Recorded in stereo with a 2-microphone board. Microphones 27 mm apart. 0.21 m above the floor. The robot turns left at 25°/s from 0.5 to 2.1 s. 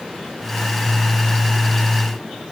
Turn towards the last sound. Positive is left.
No sound to turn to.